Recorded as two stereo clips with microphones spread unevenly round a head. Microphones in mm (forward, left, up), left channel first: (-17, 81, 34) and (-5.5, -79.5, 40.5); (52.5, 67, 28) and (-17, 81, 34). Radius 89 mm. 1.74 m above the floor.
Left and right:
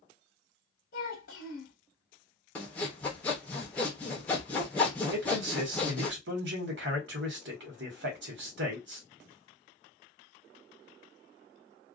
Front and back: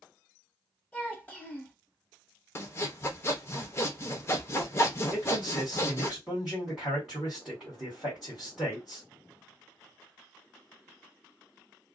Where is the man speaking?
105° right, 1.4 m.